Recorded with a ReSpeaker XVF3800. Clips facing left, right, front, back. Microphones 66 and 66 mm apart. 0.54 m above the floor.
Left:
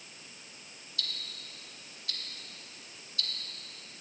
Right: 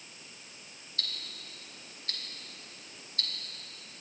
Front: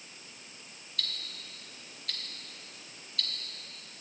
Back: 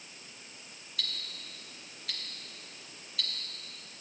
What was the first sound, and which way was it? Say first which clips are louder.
Ticking: even, even; 95° right.